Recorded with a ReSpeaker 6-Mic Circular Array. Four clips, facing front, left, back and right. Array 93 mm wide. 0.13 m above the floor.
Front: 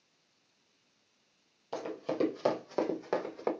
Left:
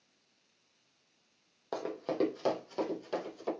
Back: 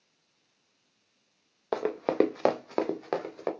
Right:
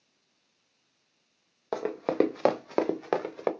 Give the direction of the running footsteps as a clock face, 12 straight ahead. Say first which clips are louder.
Right 7 dB, back 8 dB; 5 o'clock.